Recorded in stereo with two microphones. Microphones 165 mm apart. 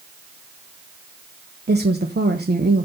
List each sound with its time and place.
1.7 s a woman speaking: 85° right, 0.9 m